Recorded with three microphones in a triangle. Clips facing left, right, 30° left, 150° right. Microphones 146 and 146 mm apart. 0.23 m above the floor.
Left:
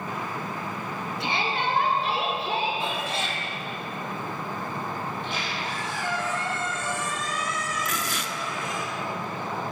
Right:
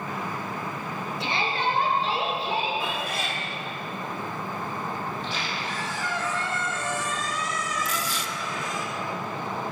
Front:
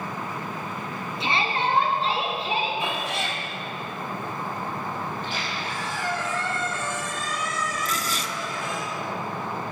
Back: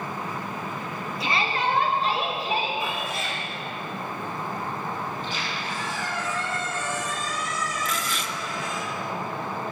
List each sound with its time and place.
1.2 s a shout: 90° left, 3 m; by 3.1 s 85° left, 4.5 m
2.8 s a cat meowing: 30° left, 2.0 m
5.1 s a squeak: 60° left, 5 m
7.8 s tearing paper: 75° left, 0.8 m